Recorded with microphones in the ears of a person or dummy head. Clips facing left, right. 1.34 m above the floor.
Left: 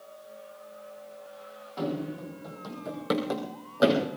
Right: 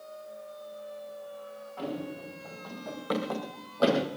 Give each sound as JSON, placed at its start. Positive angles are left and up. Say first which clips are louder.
{"t": 1.8, "sound": "running footsteps", "louder": "left 4 dB", "side_deg": 50, "distance_m": 4.0}